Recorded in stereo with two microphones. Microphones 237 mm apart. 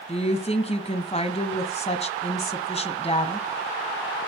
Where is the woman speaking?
25° left (ahead or behind), 1.4 m.